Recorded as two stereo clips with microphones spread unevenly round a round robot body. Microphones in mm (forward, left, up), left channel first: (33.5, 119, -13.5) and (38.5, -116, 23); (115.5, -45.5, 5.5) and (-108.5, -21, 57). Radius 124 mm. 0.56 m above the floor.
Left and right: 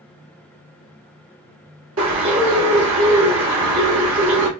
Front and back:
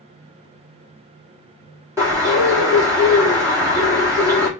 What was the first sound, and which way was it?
A bird, 100° right.